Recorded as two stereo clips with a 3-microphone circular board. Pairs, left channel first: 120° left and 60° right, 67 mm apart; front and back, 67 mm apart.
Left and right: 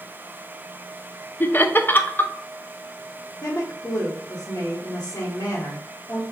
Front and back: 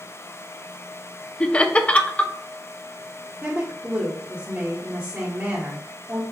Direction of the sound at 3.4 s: 130° left.